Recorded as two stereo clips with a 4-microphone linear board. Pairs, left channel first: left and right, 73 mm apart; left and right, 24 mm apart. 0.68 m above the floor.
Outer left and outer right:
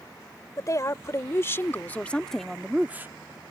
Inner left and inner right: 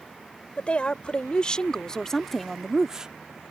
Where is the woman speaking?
45° left (ahead or behind); by 3.1 s 30° right (ahead or behind).